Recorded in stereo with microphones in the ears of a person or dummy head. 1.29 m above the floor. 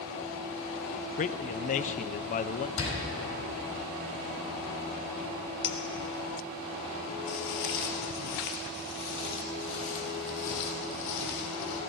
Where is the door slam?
80° left, 6.5 m.